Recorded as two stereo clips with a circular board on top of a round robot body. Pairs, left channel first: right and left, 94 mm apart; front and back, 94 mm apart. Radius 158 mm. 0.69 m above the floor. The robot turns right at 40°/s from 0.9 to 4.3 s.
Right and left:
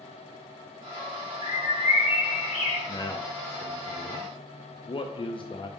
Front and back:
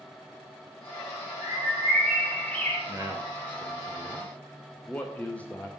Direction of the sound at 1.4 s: 120° right.